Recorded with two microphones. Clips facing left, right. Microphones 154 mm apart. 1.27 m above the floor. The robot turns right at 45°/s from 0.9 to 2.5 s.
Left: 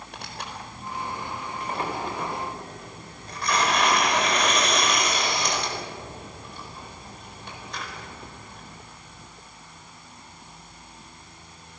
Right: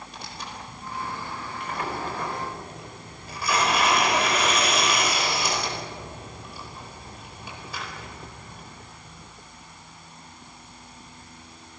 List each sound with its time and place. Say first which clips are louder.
0.1 s tearing paper: left 3 dB; 65° left (ahead or behind), 4.5 m; by 8.7 s 5° right (ahead or behind), 4.5 m